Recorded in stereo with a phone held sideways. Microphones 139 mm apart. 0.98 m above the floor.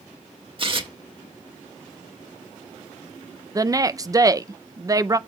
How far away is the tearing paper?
About 1.4 m.